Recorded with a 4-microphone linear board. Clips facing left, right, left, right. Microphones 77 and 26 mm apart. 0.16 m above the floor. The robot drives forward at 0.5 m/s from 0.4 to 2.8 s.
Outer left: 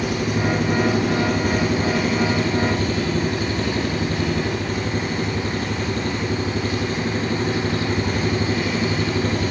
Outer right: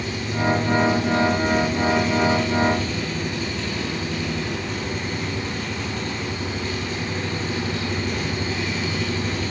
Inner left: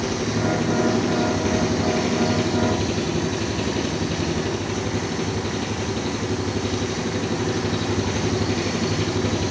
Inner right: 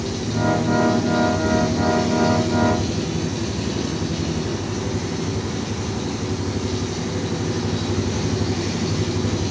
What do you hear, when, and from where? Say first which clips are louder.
0.0 s an engine running: outer left 3 dB, even; 65° left (ahead or behind), 3 m; by 9.5 s 50° left (ahead or behind), 3.5 m